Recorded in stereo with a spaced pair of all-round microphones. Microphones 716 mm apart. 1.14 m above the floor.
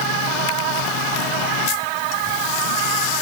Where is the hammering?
No hammering in this recording.